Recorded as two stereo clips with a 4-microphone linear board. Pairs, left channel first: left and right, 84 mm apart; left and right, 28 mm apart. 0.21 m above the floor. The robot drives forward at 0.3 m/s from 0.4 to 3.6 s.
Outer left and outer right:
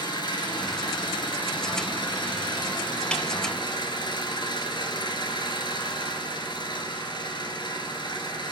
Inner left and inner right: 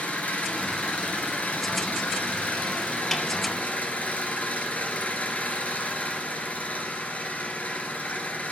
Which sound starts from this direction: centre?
A snare drum, at 3.1 s.